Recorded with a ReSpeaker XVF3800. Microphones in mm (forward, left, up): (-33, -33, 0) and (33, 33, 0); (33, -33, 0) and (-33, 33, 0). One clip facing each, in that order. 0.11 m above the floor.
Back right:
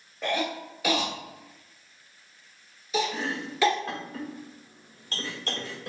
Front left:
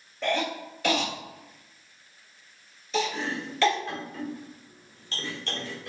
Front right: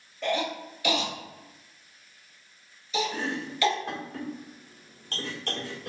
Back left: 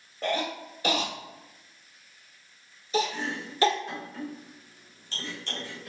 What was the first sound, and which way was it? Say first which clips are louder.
A cough: front left 1 dB, front right 1 dB; 145° left.